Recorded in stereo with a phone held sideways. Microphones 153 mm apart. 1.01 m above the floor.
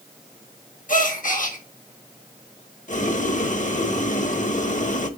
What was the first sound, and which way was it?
A gasp, 60° left (ahead or behind).